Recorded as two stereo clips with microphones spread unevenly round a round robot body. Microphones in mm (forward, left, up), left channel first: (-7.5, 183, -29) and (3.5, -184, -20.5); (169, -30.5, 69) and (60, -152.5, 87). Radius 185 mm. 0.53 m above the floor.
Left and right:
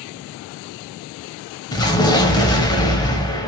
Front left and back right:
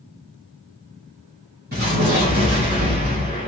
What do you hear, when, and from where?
1.7 s an explosion: 170° left, 0.6 m